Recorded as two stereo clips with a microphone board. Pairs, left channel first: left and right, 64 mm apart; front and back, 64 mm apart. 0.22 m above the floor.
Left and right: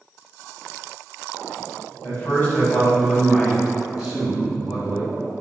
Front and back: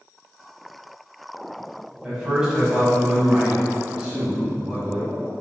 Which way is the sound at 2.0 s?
105° left.